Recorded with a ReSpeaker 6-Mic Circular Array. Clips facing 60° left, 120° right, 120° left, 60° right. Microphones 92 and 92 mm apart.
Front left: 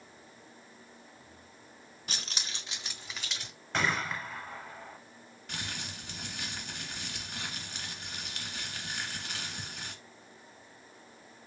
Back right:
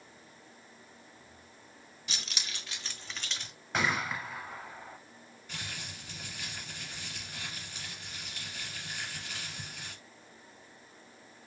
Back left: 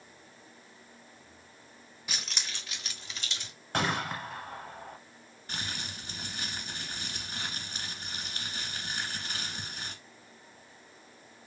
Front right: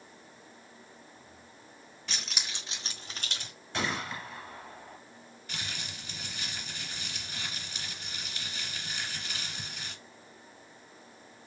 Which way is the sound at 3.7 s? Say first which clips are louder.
Even, back left 3 dB; 155° left.